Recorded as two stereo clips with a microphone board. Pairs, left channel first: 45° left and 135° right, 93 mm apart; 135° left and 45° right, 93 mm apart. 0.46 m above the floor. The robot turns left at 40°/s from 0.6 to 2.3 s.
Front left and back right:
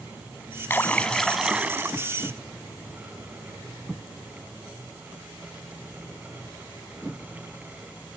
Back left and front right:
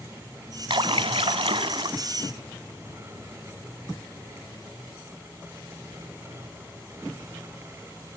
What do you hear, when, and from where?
0.7 s a splash: 20° right, 0.9 m; by 2.0 s 70° right, 0.9 m